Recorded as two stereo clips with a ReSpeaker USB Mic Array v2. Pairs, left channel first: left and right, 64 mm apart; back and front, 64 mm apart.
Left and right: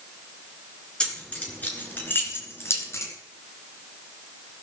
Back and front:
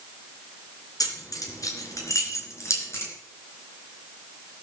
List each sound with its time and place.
1.0 s keys jangling: 165° left, 3 m; by 3.1 s 135° left, 3.5 m